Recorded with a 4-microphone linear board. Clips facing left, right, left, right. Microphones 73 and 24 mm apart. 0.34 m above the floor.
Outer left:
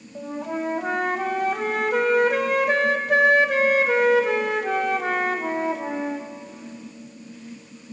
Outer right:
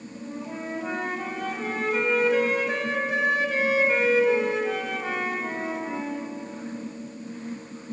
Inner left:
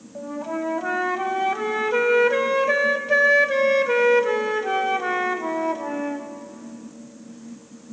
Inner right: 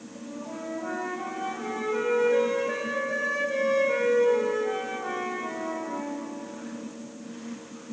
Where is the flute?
60° left (ahead or behind), 0.7 m.